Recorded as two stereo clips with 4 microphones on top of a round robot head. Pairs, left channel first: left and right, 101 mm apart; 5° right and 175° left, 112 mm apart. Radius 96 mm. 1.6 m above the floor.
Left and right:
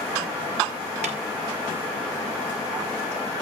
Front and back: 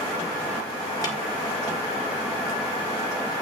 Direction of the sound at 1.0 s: 70° right.